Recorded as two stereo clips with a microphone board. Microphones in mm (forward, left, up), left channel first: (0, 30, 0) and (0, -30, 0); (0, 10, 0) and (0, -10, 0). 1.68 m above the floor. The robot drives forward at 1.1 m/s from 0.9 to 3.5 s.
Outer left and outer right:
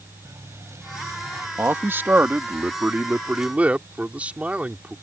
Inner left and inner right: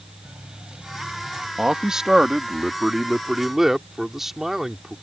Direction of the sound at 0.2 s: 55° right (ahead or behind).